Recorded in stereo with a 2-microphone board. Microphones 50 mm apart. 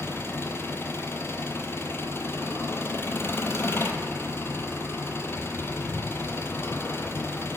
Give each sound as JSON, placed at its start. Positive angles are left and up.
{"t": 0.0, "sound": "an engine running", "side_deg": 50, "distance_m": 0.9}